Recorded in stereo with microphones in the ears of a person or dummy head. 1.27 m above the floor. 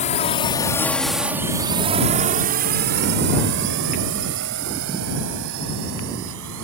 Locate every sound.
0.0 s a drone: 35° left (ahead or behind); by 6.6 s 75° right (ahead or behind)